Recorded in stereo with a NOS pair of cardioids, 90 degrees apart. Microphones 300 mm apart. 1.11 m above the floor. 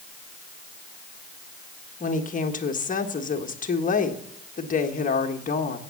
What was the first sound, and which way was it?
A woman speaking, 30° left.